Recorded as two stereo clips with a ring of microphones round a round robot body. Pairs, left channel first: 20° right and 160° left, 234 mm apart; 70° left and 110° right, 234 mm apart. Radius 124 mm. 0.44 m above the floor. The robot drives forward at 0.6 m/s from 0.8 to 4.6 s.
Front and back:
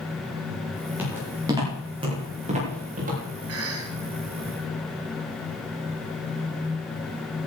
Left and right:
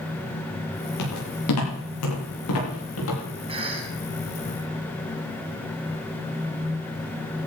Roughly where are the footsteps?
Left.